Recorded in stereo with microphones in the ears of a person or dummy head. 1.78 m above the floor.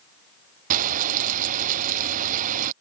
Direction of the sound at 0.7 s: 45° right (ahead or behind).